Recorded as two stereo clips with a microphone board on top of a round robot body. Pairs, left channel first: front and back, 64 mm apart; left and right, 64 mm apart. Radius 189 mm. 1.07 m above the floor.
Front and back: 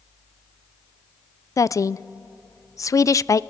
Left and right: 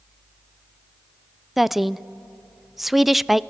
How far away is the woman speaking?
About 0.5 m.